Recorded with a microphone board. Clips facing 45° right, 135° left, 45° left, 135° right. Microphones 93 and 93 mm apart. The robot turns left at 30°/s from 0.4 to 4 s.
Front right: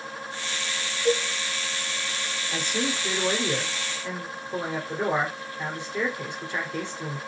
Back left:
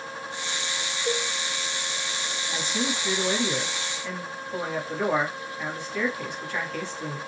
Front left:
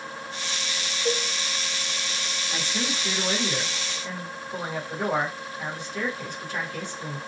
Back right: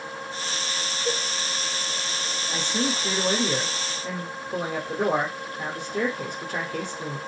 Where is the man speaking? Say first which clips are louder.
Front right 1 dB, back right 4 dB; 65° right, 1.9 m; by 7.2 s 110° right, 1.9 m.